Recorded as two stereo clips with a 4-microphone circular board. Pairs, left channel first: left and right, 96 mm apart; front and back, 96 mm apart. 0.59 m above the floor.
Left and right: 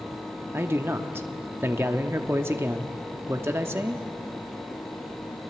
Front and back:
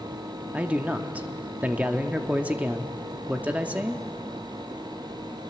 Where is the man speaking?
120° right, 0.9 m.